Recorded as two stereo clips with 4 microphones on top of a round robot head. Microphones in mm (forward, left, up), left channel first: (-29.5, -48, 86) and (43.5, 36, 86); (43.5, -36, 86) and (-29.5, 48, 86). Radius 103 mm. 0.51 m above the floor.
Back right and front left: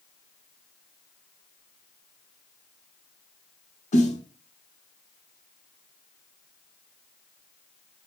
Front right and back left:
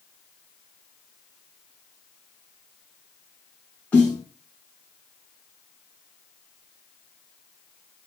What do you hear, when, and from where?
3.9 s a snare drum: 130° right, 4 m